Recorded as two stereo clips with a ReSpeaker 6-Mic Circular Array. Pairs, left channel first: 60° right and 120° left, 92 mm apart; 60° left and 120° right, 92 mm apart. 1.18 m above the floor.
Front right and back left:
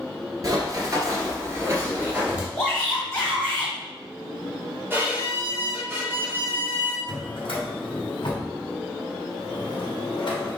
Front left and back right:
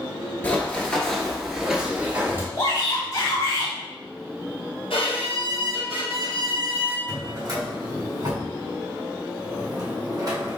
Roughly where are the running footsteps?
Behind left.